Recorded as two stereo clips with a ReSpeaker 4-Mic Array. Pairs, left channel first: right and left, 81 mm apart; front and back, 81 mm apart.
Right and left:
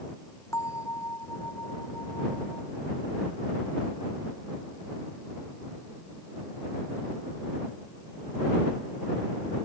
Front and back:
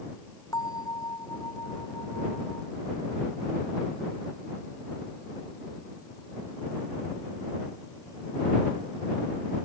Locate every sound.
0.5 s a bell: 40° right